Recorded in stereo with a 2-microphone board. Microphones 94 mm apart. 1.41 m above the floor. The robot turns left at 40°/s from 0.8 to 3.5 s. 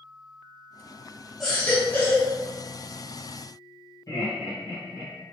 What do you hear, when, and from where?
1.4 s a baby crying: 175° left, 1.5 m; by 2.3 s 140° left, 1.5 m
4.1 s laughter: 40° left (ahead or behind), 1.2 m